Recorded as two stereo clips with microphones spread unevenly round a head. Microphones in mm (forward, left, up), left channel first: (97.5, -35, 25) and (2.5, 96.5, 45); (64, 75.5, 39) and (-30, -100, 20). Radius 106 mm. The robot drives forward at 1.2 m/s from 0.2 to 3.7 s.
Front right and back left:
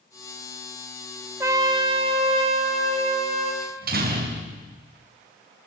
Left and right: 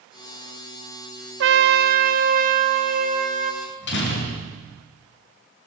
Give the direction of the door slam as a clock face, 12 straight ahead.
9 o'clock.